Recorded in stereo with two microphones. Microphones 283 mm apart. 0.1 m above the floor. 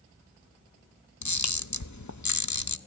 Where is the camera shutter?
70° left (ahead or behind), 0.7 m.